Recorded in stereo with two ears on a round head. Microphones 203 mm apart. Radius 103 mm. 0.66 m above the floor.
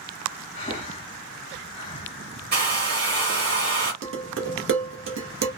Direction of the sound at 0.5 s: 25° left (ahead or behind).